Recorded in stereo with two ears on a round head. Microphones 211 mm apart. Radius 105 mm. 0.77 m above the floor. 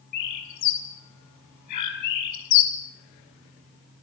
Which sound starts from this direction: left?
A bird, at 0.1 s.